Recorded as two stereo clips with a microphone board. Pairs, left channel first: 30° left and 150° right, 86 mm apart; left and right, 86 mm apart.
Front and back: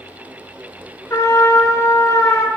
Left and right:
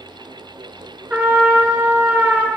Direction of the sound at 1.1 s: 20° right.